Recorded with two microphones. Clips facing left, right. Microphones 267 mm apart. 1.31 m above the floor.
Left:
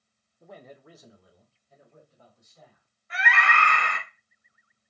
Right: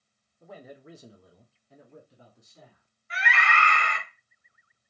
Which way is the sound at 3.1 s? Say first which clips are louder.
Left 2 dB; 60° left (ahead or behind).